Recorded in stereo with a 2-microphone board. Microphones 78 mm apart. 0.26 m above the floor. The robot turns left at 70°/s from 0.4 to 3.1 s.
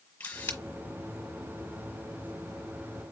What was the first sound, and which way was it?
A camera shutter, 20° left (ahead or behind).